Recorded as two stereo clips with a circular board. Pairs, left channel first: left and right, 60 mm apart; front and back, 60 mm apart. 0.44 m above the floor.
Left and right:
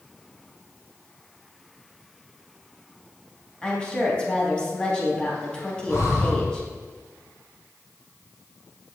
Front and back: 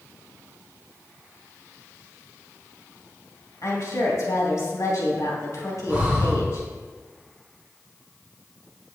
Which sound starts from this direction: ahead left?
A woman speaking, at 3.6 s.